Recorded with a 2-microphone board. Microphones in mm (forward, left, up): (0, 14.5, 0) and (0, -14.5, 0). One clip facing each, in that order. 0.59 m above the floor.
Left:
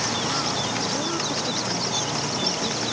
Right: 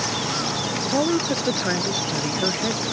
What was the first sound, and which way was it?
A woman speaking, 50° right (ahead or behind).